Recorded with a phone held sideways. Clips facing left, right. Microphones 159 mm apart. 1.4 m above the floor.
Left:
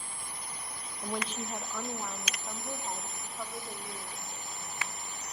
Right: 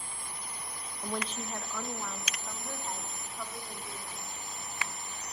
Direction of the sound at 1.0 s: 5° left (ahead or behind).